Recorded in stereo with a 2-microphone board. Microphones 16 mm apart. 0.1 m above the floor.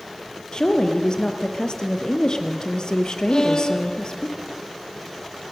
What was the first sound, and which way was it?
A woman speaking, 55° left (ahead or behind).